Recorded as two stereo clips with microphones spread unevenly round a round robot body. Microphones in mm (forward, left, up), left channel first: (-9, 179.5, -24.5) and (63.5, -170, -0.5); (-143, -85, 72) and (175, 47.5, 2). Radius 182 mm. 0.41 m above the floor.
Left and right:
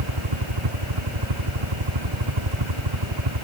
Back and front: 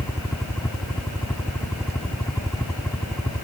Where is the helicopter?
70° right.